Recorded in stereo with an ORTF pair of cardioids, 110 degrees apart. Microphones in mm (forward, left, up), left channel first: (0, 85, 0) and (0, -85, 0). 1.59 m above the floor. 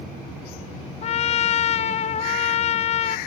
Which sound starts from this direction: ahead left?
A trumpet, at 1.0 s.